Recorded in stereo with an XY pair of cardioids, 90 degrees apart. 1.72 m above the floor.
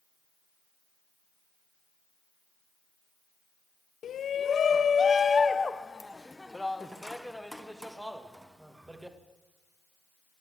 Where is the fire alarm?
I don't hear a fire alarm.